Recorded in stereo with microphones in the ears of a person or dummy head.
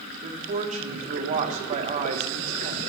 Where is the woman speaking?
40° right (ahead or behind), 1.3 m.